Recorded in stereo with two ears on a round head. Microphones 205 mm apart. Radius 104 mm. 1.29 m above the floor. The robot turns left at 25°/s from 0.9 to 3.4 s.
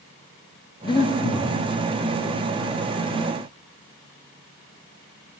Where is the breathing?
20° left (ahead or behind), 0.5 m; by 1.6 s 35° left (ahead or behind), 0.5 m.